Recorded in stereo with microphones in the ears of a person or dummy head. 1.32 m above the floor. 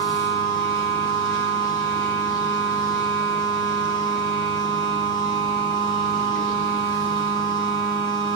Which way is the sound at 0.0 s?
5° left (ahead or behind).